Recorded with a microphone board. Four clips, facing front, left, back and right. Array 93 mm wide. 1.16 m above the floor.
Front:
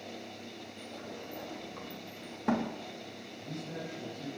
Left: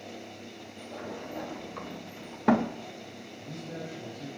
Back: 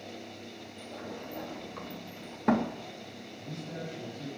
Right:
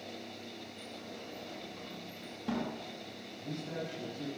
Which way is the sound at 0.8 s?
110° left.